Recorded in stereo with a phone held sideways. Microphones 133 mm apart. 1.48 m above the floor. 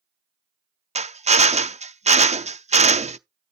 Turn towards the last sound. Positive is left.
turn(degrees=-55)  # may be behind; listen again after turning